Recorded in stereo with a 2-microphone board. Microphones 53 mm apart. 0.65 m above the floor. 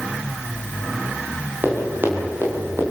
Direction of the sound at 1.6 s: 40° right (ahead or behind).